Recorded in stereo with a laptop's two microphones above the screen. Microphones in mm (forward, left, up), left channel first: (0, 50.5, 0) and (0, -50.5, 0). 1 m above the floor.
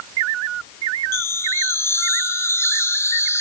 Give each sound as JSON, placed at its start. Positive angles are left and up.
{"t": 1.1, "sound": "a chime", "side_deg": 25, "distance_m": 0.9}